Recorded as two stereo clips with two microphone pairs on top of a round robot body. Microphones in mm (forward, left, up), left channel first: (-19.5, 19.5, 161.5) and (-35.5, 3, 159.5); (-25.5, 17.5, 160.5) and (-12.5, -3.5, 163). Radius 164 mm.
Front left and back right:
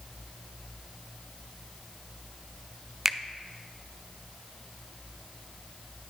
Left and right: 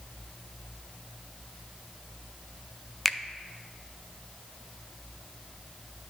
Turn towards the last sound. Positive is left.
turn(degrees=180)